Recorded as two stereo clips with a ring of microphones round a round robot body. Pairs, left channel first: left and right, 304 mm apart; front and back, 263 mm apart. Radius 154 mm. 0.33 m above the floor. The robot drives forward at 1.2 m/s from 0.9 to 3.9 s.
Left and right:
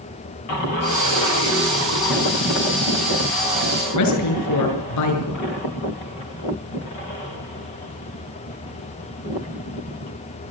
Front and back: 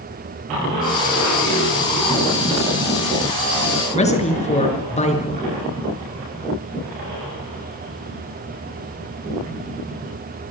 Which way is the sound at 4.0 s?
60° left.